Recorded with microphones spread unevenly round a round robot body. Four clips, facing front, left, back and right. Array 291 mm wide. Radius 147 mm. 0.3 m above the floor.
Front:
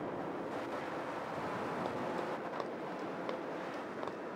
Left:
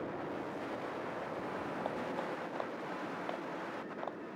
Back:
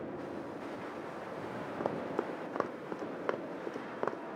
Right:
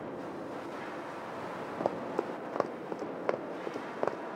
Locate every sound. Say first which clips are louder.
1.8 s running footsteps: right 9 dB, back 2 dB; 130° right